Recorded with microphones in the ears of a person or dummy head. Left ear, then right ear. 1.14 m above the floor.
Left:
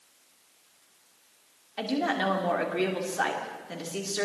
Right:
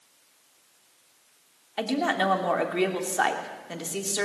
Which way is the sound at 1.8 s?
30° right (ahead or behind).